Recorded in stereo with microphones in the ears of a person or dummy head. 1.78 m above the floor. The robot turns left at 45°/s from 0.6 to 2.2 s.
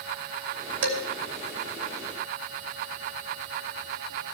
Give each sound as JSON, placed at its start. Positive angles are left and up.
{"t": 0.8, "sound": "dishes clattering", "side_deg": -65, "distance_m": 2.5}